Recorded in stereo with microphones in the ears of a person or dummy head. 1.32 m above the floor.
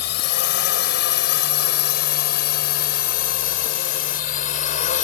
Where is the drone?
60° left (ahead or behind); by 5.0 s 45° left (ahead or behind).